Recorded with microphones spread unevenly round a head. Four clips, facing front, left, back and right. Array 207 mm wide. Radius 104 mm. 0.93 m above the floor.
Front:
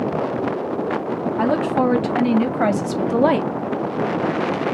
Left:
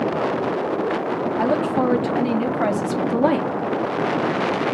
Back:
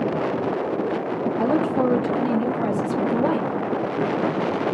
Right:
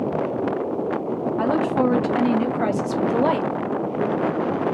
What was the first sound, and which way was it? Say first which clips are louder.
A woman speaking: even, front 2 dB; 30° left.